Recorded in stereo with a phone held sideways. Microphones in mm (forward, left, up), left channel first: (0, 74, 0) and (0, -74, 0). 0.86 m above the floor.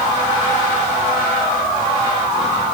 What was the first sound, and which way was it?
Only background noise.